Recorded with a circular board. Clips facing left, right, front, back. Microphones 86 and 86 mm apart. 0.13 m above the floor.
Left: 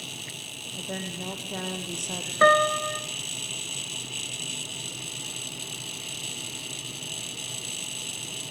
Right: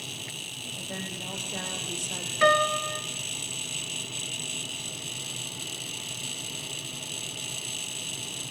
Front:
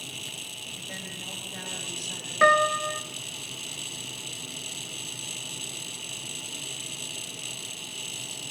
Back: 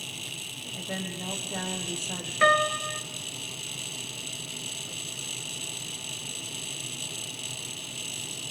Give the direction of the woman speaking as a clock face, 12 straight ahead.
8 o'clock.